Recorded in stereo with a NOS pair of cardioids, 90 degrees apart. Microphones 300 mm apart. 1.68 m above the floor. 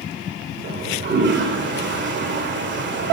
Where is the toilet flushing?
40° right, 1.2 m.